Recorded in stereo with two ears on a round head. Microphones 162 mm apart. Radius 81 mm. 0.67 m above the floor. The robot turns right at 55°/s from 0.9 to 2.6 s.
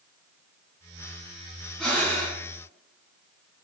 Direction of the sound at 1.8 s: Straight ahead.